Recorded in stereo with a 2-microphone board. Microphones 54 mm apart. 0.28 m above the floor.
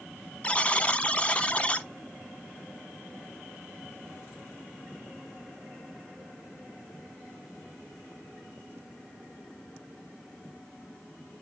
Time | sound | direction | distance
0.4 | a buzzer | 25° left (ahead or behind) | 0.8 m